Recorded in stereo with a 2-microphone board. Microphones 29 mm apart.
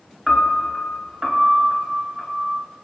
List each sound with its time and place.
0.3 s a piano: 5° right (ahead or behind), 0.9 m